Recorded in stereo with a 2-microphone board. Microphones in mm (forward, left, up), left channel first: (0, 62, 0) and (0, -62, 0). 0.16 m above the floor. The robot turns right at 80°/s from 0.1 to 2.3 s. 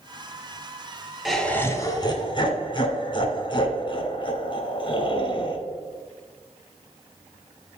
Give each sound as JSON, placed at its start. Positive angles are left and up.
{"t": 1.2, "sound": "laughter", "azimuth_deg": 0, "distance_m": 1.3}